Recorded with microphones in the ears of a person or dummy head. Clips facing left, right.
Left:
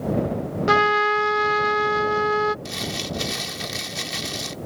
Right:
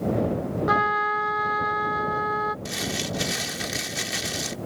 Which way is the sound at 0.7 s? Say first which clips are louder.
Left 5 dB; 35° left (ahead or behind).